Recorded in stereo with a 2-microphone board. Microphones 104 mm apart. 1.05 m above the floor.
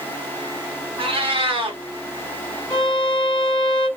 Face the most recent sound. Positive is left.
turn(degrees=45)  # may be behind; listen again after turning